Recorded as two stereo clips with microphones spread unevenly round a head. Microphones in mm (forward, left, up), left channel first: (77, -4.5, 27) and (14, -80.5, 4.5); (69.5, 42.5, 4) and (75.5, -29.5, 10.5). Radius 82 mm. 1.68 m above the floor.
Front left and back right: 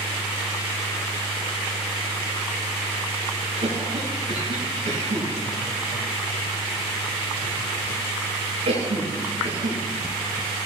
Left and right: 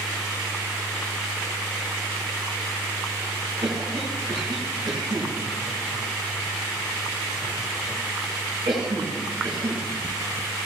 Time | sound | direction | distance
3.6 | a cough | 135° right | 6.5 m